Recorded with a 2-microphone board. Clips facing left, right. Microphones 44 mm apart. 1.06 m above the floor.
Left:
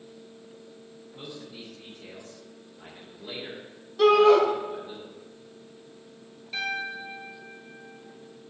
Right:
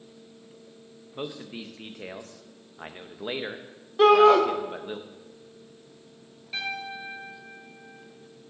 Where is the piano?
5° right (ahead or behind), 2.5 m.